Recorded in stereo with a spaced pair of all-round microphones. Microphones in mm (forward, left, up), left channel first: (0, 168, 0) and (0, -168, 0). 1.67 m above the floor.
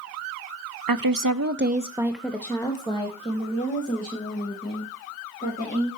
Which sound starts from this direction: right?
A woman speaking, at 0.9 s.